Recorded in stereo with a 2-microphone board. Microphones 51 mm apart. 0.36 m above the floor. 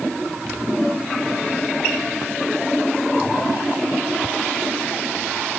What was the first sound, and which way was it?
Only background noise.